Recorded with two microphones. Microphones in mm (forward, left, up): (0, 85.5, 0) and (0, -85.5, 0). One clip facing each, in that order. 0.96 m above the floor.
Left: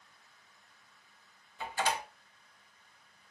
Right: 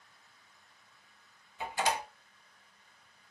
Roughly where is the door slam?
Centre.